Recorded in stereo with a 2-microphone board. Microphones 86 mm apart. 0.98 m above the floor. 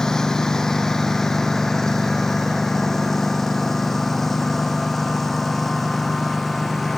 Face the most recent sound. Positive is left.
turn(degrees=0)  # may be behind; listen again after turning